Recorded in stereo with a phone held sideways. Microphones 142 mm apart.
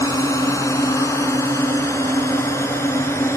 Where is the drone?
20° left (ahead or behind).